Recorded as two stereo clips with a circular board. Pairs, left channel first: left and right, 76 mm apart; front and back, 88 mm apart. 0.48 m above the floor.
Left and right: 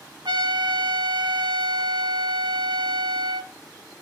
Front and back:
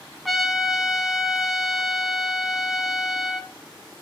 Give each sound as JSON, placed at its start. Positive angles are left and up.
{"t": 0.2, "sound": "a trumpet", "azimuth_deg": -90, "distance_m": 1.2}